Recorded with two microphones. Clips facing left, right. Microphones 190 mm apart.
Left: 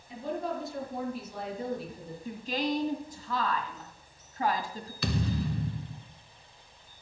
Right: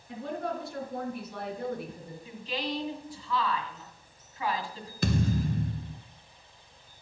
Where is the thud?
45° right (ahead or behind), 0.9 m.